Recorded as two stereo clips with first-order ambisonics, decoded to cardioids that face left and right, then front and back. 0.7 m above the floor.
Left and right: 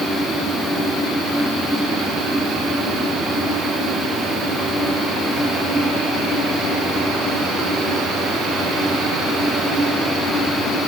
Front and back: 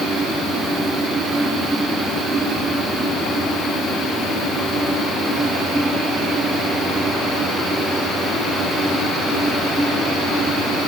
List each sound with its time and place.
Only background noise.